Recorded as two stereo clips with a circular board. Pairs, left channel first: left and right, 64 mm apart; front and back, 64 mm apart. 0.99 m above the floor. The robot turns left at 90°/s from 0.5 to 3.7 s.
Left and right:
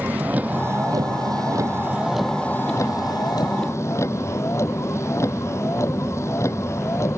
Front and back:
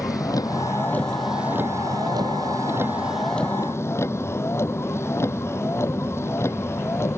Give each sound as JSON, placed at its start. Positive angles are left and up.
{"t": 0.0, "sound": "a vehicle", "azimuth_deg": -25}